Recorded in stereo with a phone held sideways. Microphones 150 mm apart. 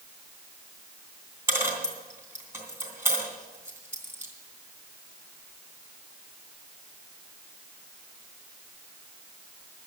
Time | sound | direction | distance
1.5 | a dropped coin | 15° right (ahead or behind) | 3 m